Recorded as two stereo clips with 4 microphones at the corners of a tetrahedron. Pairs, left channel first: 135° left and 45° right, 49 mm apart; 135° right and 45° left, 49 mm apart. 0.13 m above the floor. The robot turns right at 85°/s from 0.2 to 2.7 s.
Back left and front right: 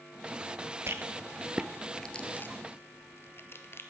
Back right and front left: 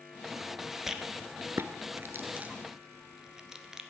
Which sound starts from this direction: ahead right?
A rattle, at 0.9 s.